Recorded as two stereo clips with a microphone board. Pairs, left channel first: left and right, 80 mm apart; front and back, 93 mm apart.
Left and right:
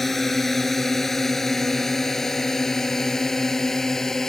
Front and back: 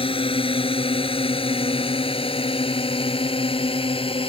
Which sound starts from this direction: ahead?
A drone, at 0.0 s.